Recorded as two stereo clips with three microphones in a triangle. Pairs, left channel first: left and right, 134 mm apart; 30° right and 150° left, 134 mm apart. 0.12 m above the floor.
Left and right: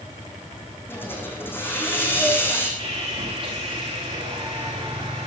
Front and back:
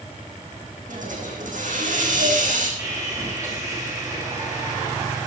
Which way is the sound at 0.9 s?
165° left.